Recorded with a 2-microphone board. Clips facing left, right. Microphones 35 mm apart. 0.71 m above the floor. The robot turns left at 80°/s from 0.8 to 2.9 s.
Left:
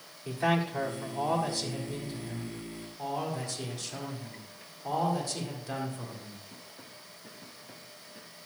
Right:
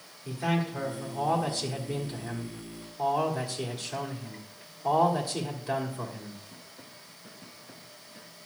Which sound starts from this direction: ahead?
A man speaking, at 0.2 s.